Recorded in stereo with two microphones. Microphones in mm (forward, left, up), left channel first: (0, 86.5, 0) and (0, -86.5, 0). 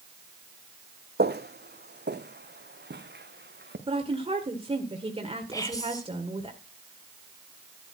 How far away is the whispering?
About 2.5 m.